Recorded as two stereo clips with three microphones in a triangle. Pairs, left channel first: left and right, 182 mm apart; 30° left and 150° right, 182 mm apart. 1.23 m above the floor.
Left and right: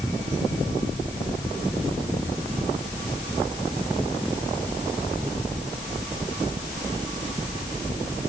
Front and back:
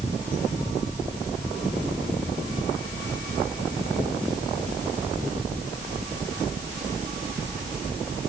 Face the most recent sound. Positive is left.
No sound to turn to.